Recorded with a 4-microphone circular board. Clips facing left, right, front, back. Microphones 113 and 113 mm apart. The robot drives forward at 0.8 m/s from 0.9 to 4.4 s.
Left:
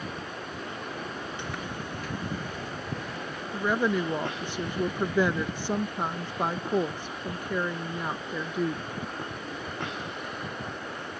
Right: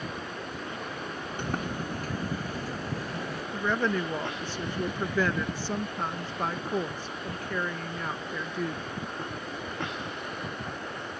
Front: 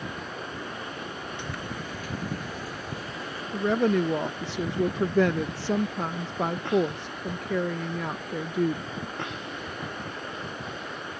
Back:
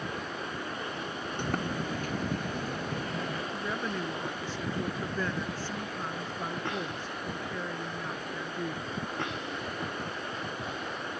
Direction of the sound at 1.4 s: 135° right.